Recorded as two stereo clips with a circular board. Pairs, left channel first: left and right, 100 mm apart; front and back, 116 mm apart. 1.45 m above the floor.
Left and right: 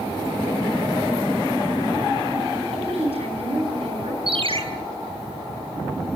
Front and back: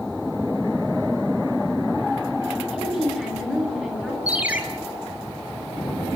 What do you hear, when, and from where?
2.7 s a woman speaking: 85° right, 8 m
4.3 s a ringtone: 105° right, 3 m